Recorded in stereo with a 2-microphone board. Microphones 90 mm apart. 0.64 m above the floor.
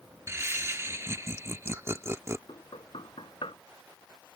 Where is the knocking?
80° left.